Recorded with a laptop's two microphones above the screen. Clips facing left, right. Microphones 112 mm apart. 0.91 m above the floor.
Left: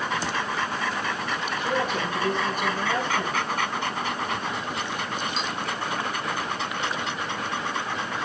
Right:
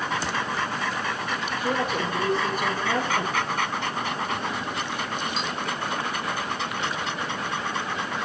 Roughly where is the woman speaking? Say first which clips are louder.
Right 1 dB; right.